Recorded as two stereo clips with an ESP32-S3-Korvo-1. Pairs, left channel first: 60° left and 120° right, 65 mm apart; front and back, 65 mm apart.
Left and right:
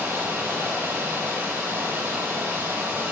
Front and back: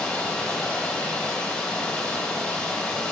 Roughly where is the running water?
Right.